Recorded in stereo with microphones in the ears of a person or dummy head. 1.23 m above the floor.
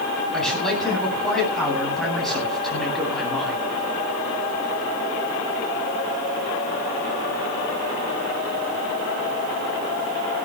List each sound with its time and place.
0.3 s a man speaking: centre (ahead or behind), 9 m